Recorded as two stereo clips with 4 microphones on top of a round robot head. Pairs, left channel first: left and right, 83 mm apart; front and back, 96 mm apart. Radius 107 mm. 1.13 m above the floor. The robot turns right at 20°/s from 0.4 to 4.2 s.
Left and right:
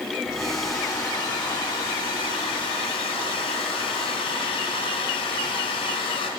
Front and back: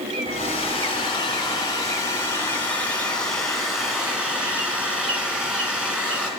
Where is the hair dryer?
20° left, 2.5 m; by 6.3 s 100° left, 2.5 m.